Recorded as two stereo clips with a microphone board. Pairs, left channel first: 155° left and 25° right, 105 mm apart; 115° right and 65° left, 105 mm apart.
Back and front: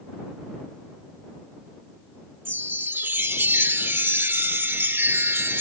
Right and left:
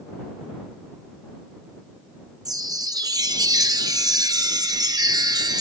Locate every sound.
2.5 s a chime: 40° left